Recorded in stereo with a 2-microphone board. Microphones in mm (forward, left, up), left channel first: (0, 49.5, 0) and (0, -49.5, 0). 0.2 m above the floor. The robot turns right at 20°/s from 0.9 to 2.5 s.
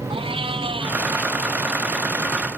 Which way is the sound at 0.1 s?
65° right (ahead or behind).